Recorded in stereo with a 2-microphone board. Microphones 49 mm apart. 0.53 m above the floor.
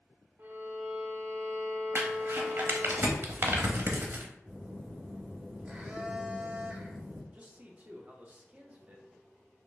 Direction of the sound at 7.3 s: 30° right (ahead or behind).